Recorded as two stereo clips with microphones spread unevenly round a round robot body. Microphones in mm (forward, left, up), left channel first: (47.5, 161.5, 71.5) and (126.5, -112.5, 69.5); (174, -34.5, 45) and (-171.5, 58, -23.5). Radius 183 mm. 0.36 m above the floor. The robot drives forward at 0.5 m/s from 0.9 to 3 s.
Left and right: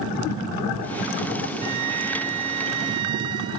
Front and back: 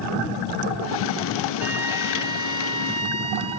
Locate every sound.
1.6 s a flute: 110° right; by 3.6 s 120° right